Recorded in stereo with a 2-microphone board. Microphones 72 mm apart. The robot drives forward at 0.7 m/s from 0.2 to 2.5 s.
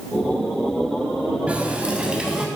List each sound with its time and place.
1.5 s a running tap: 20° right (ahead or behind), 0.7 m; by 2.5 s 10° right (ahead or behind), 1.1 m